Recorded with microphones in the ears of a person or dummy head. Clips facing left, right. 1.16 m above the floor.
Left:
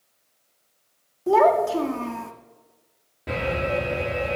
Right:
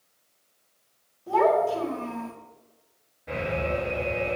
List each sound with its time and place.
1.3 s a child speaking: 65° left (ahead or behind), 2.0 m
3.3 s an alarm: 75° left (ahead or behind), 4.5 m